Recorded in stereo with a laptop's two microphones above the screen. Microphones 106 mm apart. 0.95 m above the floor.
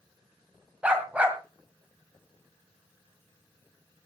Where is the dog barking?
10° right (ahead or behind), 1.7 m.